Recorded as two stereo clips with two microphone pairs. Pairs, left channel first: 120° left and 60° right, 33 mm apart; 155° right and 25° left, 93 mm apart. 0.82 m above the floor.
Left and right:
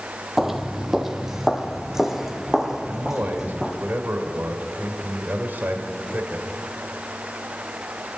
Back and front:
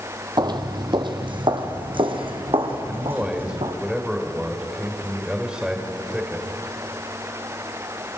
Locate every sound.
0.4 s footsteps: 15° left, 1.2 m; by 3.8 s 20° left, 3 m
2.9 s a man speaking: 55° right, 3 m